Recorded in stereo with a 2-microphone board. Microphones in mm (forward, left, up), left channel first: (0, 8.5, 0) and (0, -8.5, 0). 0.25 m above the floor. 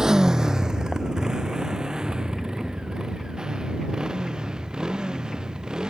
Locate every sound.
0.0 s a motorcycle: 35° right (ahead or behind); by 5.9 s 50° right (ahead or behind)